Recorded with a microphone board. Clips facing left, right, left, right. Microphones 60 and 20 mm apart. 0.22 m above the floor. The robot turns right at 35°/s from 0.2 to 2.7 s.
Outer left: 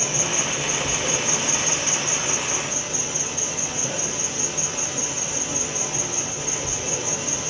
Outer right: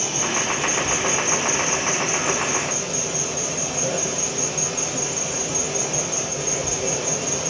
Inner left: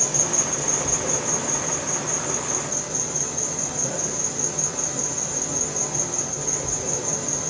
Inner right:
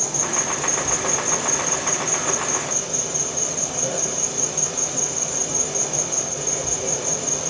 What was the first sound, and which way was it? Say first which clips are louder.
An insect: outer right 2 dB, even; 160° left.